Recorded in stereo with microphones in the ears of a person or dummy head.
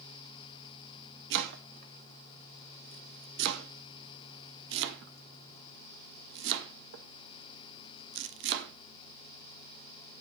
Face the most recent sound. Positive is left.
turn(degrees=-65)  # may be behind; listen again after turning